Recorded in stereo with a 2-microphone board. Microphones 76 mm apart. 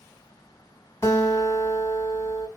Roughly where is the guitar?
Left.